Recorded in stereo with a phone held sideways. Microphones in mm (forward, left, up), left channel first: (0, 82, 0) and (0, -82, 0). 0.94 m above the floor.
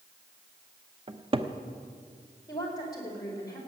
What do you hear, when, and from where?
1.1 s a cupboard door: 35° right (ahead or behind), 0.7 m
2.5 s a woman speaking: 20° left (ahead or behind), 4.5 m